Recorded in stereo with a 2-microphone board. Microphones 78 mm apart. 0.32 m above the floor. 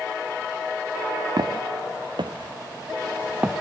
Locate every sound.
1.4 s footsteps: 65° right (ahead or behind), 1.8 m; by 3.6 s 15° right (ahead or behind), 1.5 m